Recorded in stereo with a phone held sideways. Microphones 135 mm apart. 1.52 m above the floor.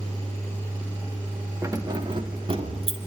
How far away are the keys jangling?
About 1.5 m.